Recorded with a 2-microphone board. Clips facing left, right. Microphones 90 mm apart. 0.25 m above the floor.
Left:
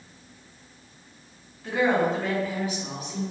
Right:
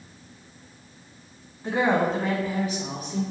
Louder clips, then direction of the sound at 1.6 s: Even; 35° right (ahead or behind).